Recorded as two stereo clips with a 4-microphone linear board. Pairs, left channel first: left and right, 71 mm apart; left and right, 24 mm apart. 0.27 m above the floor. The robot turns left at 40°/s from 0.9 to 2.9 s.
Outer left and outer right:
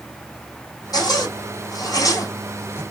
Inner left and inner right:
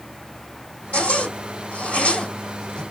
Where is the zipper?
65° left (ahead or behind), 3.5 m; by 2.8 s 40° left (ahead or behind), 3.5 m.